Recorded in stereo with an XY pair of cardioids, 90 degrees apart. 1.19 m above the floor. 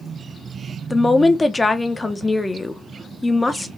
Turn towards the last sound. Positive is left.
turn(degrees=20)